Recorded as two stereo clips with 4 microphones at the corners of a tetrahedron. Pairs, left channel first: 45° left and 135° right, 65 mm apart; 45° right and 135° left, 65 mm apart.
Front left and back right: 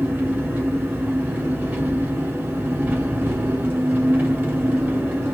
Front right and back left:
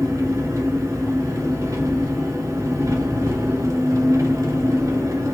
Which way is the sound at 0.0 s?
170° left.